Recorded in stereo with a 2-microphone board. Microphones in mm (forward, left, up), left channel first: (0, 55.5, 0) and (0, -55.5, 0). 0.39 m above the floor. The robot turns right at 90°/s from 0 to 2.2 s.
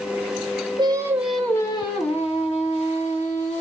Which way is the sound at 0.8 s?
50° right.